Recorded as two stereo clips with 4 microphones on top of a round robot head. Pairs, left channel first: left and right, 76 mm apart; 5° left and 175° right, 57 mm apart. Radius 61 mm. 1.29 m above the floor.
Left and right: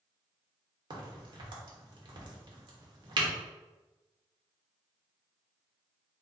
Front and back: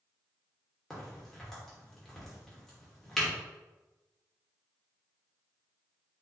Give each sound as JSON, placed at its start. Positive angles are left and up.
{"t": 0.9, "sound": "a crack", "azimuth_deg": -80, "distance_m": 1.2}